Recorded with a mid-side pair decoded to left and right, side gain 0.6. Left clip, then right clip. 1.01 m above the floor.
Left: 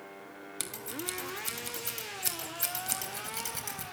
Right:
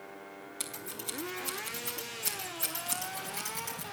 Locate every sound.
0.6 s scissors: 25° left, 3.5 m